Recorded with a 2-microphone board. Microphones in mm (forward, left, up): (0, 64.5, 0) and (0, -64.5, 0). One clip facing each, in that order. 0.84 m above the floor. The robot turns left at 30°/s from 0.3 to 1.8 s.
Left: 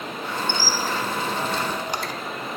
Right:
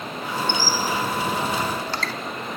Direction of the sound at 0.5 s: 20° right (ahead or behind).